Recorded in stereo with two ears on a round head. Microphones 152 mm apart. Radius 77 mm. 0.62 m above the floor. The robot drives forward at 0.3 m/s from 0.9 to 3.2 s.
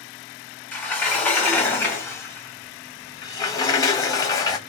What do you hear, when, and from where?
0.7 s a sliding door: 10° left (ahead or behind), 1.3 m; by 4.6 s 20° left (ahead or behind), 0.7 m